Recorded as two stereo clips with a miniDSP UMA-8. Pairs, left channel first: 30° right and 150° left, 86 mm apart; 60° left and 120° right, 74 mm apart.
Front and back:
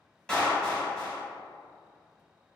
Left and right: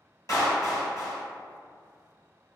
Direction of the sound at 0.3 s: 50° left.